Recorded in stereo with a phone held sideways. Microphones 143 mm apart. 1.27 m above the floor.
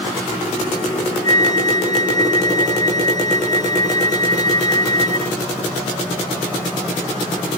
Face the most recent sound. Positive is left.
turn(degrees=-50)  # may be behind; listen again after turning